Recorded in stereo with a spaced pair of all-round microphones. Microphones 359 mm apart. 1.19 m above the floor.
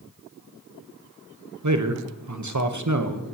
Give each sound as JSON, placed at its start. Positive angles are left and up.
{"t": 1.6, "sound": "a man speaking", "side_deg": -55, "distance_m": 1.0}